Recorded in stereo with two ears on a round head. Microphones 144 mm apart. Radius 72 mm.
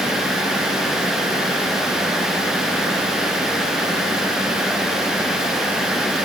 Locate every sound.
Only background noise.